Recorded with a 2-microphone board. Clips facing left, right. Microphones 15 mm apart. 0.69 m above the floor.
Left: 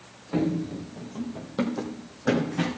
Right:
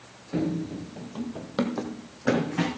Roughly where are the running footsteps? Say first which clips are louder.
Left 2 dB; left.